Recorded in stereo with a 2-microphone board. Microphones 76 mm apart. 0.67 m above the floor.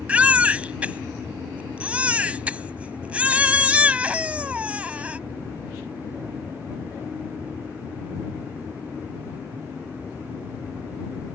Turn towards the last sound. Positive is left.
turn(degrees=-15)  # may be behind; listen again after turning